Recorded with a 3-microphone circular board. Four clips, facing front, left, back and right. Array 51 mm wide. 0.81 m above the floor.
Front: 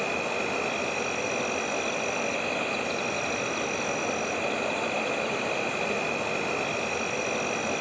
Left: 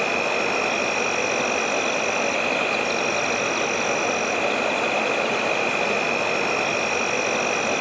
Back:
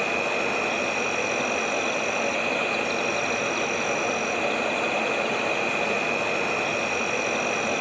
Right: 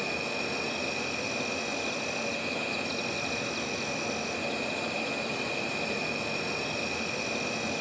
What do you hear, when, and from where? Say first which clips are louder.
0.0 s an insect: left 10 dB, back 4 dB; 110° left, 0.9 m